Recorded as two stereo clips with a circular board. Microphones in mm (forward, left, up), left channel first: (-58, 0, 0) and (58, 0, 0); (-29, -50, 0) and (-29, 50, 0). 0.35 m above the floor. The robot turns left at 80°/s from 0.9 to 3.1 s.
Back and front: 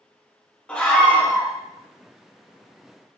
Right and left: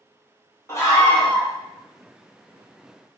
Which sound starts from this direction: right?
A scream, at 0.7 s.